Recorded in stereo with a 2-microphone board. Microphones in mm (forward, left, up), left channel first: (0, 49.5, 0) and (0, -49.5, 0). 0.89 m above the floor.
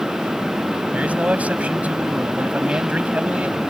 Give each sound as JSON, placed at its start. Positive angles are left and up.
{"t": 0.9, "sound": "a man speaking", "side_deg": -15}